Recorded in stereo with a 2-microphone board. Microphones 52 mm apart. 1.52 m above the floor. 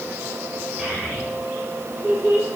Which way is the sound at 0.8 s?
5° left (ahead or behind).